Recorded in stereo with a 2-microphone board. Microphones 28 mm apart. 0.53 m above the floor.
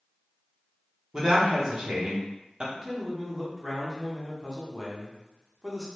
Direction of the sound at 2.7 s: 10° right (ahead or behind).